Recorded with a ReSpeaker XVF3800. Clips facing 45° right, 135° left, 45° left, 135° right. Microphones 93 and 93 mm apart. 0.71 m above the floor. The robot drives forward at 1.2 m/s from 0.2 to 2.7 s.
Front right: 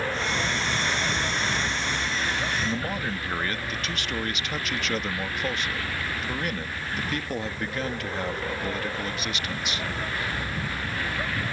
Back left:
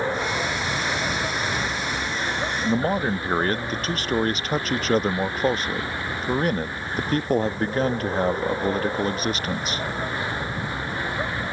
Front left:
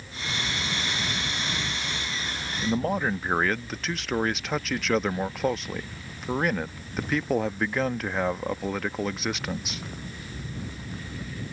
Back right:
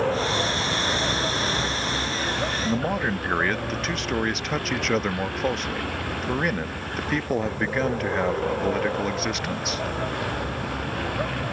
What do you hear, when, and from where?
0.0 s a vehicle: 155° right
2.6 s a man speaking: 120° left; by 9.8 s 135° left